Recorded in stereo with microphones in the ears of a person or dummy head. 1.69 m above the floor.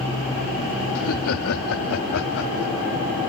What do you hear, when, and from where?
0.9 s laughter: 75° left (ahead or behind); by 2.9 s 85° left